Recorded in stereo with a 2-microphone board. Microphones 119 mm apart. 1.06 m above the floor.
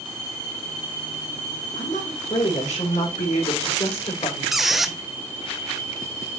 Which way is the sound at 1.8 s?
80° left.